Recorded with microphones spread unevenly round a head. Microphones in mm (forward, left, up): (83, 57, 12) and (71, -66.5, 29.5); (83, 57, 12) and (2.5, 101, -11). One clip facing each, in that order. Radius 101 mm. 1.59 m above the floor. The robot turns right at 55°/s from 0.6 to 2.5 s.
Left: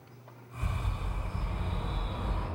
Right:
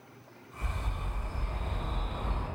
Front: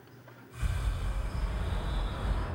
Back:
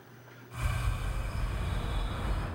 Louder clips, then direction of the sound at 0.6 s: Left 1 dB, back 3 dB; 50° right.